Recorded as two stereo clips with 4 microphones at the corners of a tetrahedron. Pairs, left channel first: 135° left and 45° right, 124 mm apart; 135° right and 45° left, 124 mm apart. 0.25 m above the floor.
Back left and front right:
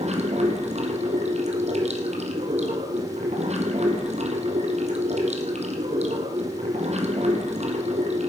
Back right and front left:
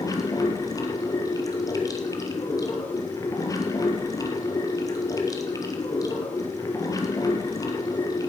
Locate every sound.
0.0 s running water: 70° right, 1.6 m